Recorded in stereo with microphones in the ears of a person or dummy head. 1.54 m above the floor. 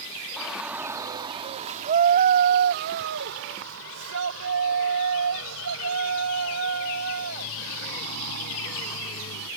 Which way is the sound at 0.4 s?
10° right (ahead or behind).